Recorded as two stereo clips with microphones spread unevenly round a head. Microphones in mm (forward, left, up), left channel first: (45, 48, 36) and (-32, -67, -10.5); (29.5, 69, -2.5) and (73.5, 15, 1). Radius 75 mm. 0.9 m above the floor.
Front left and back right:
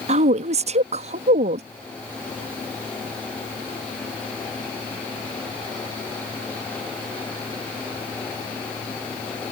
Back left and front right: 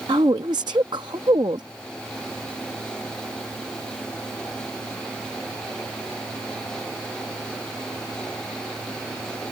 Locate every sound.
0.1 s a woman speaking: 95° right